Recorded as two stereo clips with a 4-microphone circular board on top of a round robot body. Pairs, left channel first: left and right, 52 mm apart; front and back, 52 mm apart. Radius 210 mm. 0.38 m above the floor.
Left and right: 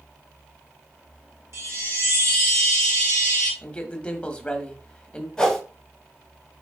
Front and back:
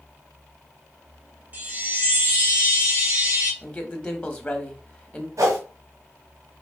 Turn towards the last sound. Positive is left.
turn(degrees=170)